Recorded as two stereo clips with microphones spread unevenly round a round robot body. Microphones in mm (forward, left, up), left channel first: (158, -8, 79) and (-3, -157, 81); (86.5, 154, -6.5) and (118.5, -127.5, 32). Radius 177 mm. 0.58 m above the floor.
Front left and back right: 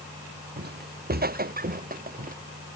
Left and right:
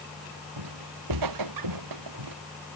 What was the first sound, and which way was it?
Footsteps, 95° right.